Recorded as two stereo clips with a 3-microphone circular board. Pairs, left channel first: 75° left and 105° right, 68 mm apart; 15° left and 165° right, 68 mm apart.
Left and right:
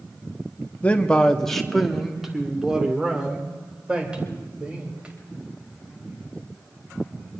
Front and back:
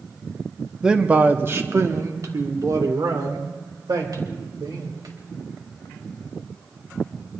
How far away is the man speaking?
About 0.8 m.